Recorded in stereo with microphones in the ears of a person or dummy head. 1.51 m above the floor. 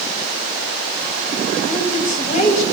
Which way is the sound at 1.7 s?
55° left (ahead or behind).